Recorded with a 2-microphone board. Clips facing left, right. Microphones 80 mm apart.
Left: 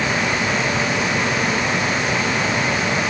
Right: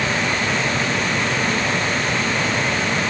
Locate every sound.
Only background noise.